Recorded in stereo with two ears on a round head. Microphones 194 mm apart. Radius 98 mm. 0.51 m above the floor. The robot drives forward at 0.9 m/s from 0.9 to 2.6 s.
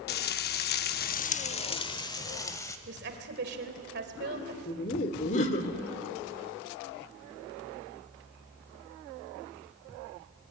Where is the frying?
45° left (ahead or behind), 0.6 m; by 2.8 s 15° left (ahead or behind), 1.7 m.